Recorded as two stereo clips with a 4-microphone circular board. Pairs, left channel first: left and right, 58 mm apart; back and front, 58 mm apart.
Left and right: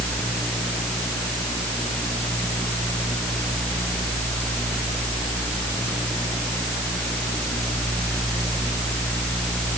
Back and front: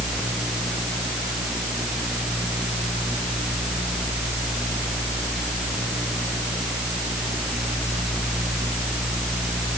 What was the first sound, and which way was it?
Only background noise.